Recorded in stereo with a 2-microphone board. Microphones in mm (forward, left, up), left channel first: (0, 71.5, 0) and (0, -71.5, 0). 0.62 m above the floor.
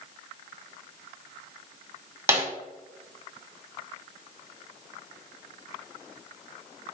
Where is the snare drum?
15° right (ahead or behind), 1.6 m.